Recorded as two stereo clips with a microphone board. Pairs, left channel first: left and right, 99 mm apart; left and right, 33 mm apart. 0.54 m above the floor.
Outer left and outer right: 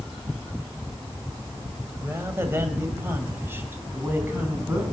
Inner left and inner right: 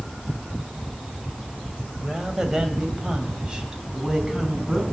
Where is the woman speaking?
25° right (ahead or behind), 2.0 m; by 4.8 s 20° right (ahead or behind), 4 m.